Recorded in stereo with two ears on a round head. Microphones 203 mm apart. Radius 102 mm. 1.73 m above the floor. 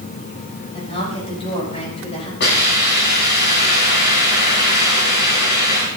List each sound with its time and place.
0.7 s a woman speaking: 25° left (ahead or behind), 8 m; by 2.3 s 30° left (ahead or behind), 6.5 m
2.4 s a hiss: 50° left (ahead or behind), 7 m